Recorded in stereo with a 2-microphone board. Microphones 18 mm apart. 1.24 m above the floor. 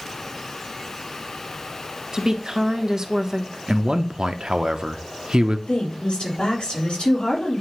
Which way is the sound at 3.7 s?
50° right (ahead or behind).